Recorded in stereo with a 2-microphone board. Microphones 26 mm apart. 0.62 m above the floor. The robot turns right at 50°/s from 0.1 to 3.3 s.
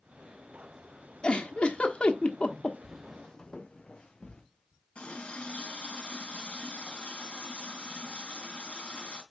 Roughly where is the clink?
I don't hear a clink.